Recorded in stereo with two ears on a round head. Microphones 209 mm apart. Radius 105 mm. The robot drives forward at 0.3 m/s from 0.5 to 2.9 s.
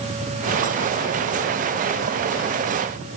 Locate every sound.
Only background noise.